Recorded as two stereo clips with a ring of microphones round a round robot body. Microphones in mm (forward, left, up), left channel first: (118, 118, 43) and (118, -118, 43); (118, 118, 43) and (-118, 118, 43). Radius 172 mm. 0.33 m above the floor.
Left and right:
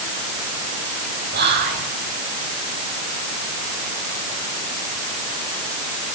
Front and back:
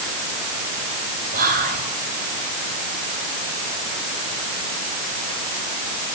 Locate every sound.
1.3 s whispering: 130° right, 2.5 m